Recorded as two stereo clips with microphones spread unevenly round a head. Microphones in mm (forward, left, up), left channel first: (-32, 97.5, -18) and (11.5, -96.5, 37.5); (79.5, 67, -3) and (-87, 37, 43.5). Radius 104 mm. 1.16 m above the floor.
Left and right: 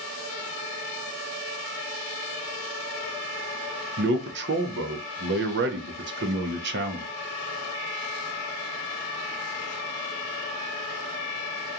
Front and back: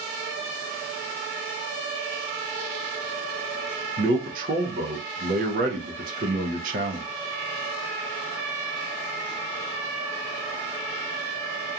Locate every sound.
4.0 s a man speaking: 115° right, 0.5 m